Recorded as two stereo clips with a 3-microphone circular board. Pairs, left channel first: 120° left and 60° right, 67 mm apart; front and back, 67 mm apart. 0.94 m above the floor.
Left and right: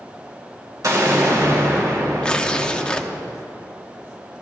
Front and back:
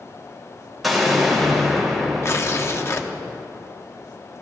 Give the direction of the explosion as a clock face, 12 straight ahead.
3 o'clock.